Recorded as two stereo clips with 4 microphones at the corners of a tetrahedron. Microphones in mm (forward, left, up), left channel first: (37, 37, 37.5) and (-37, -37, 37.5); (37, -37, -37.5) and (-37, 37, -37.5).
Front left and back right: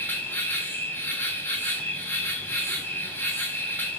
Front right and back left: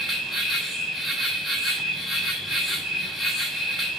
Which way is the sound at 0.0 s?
50° left.